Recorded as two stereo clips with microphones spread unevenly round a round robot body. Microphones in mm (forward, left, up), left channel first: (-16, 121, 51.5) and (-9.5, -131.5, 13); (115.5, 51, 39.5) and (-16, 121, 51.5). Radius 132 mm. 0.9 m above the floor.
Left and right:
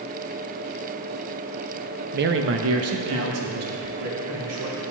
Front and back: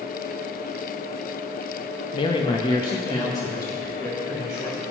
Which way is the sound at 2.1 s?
65° right.